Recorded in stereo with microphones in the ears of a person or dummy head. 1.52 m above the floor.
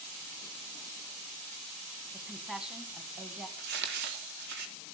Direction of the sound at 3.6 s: 60° right (ahead or behind).